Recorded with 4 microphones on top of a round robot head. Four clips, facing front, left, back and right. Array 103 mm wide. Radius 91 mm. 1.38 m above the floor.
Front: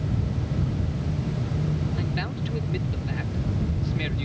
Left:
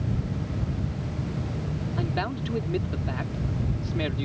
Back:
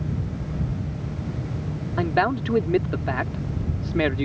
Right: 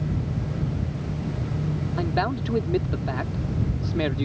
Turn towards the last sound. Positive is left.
turn(degrees=-165)